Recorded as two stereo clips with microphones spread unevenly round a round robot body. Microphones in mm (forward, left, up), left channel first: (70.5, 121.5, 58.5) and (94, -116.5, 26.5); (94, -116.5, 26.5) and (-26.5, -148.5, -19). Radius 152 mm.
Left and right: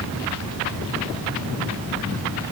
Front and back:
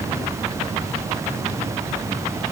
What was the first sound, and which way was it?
Only background noise.